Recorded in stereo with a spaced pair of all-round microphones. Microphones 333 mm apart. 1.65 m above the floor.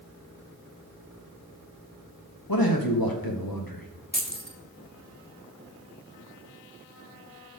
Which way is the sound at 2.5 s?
85° left.